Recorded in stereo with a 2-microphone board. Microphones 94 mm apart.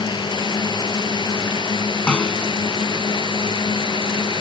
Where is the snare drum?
10° left (ahead or behind).